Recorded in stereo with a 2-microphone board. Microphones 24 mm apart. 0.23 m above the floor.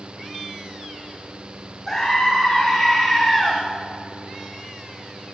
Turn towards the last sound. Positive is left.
turn(degrees=5)  # may be behind; listen again after turning